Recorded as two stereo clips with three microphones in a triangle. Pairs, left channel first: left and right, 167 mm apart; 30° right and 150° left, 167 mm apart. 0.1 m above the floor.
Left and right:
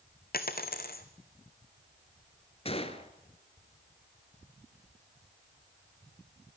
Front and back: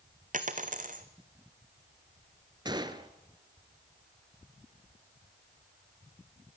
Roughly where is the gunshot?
Left.